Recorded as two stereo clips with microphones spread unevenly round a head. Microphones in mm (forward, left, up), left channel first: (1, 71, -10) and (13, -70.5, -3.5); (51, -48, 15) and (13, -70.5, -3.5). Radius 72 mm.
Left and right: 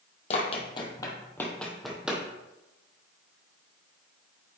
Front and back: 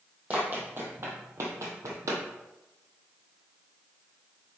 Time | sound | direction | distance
0.3 | running footsteps | 125° left | 1.6 m